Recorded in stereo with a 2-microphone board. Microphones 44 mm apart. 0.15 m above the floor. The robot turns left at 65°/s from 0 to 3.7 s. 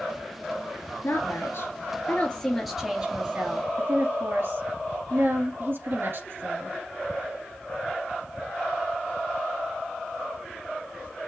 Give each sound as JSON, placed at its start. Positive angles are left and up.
{"t": 1.0, "sound": "a woman speaking", "azimuth_deg": 105, "distance_m": 2.0}